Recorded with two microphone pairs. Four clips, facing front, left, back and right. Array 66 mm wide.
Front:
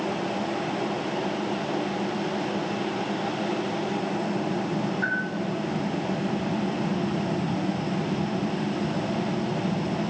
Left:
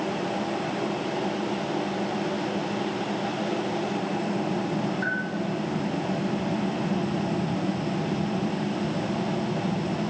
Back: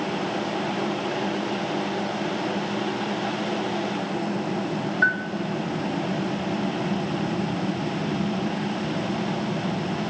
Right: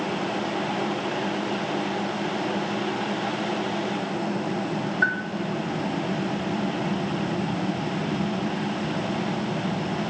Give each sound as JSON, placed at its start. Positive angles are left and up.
{"t": 5.0, "sound": "a bell", "azimuth_deg": -130, "distance_m": 3.0}